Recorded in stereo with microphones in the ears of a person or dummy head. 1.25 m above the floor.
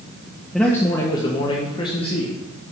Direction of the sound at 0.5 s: Centre (ahead or behind).